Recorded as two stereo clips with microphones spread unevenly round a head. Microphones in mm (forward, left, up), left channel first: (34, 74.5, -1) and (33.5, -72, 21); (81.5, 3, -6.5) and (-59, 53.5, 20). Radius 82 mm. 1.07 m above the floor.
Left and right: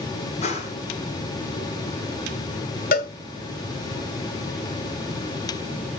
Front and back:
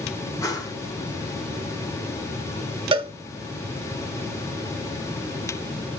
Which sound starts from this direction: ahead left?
A whoosh, at 0.4 s.